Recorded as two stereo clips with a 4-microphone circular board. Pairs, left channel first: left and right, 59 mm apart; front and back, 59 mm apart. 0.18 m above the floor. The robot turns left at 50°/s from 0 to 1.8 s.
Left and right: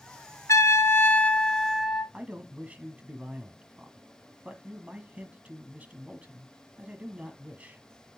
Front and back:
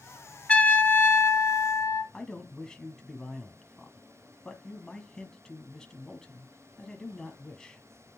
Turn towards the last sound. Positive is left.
turn(degrees=-65)